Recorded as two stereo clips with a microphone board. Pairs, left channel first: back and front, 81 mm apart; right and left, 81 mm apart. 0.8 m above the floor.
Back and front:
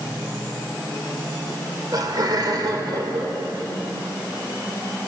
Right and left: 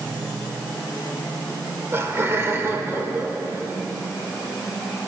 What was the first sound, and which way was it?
Laughter, 30° left.